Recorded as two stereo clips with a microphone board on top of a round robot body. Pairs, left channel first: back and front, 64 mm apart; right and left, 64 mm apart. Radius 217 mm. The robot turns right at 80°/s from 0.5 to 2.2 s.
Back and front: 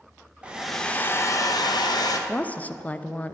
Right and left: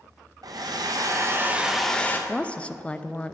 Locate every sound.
0.4 s a hair dryer: 75° left, 0.9 m; by 2.2 s 150° right, 0.9 m
2.3 s a woman speaking: 140° right, 0.6 m